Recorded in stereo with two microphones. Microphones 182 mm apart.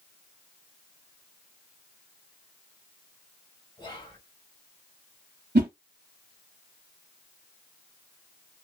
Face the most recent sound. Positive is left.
turn(degrees=-60)  # may be behind; listen again after turning